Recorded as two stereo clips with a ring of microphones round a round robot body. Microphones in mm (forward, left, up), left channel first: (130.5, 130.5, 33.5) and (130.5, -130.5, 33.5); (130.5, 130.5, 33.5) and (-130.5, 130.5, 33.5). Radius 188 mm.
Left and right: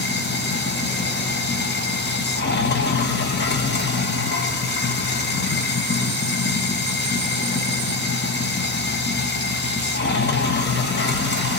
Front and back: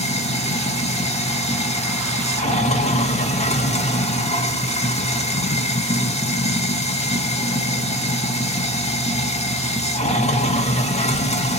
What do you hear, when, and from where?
0.0 s running water: 60° left, 1.1 m